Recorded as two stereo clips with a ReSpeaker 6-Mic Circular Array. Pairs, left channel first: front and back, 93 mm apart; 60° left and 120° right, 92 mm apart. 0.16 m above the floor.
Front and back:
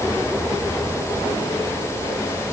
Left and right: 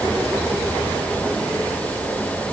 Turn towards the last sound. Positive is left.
No sound to turn to.